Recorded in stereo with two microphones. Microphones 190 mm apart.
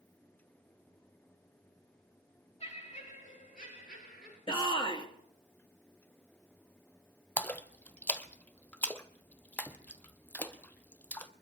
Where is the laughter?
35° left (ahead or behind), 5.5 m; by 4.4 s 60° left (ahead or behind), 6 m.